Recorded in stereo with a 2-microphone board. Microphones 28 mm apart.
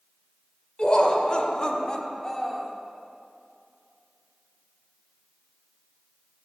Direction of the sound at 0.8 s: 35° left (ahead or behind).